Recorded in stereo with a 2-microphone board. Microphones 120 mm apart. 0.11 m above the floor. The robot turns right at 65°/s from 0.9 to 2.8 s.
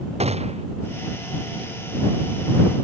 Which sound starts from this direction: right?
A gunshot, at 0.2 s.